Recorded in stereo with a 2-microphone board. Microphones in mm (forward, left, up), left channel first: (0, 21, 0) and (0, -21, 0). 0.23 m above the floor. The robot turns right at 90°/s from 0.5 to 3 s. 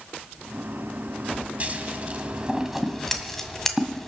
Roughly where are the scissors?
Right.